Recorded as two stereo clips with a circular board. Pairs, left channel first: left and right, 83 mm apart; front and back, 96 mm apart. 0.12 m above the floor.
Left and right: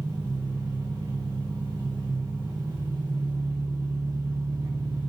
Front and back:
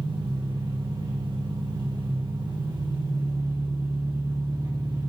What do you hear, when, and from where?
0.0 s an engine running: 140° right, 4.5 m